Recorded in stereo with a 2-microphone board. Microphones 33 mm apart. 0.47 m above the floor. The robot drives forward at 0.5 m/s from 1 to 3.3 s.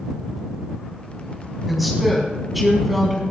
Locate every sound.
1.7 s a woman speaking: centre (ahead or behind), 4 m